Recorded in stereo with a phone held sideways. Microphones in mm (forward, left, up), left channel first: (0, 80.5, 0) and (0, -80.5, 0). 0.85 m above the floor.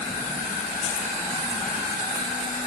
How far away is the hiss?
I don't hear a hiss.